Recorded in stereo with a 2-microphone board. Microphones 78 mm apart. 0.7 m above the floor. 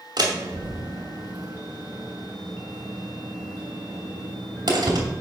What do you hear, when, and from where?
0.2 s a door slam: 60° right (ahead or behind), 2.5 m